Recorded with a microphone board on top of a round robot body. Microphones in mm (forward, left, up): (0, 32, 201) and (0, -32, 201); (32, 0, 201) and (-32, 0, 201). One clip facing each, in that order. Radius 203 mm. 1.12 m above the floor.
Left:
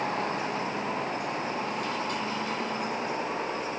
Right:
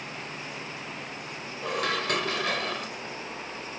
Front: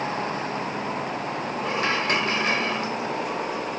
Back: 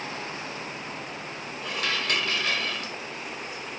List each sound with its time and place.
0.0 s a vehicle: 55° left; by 3.8 s 30° left
1.6 s dishes clattering: 65° right